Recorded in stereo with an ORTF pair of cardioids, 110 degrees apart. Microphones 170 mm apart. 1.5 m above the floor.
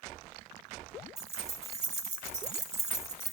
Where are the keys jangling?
40° right, 2.0 m.